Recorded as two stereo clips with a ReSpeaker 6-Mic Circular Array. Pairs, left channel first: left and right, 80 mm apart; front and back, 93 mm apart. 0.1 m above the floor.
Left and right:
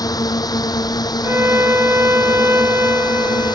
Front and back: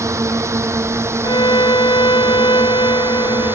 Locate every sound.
0.0 s a drone: 125° left; by 3.5 s 115° left
1.2 s a violin: 30° right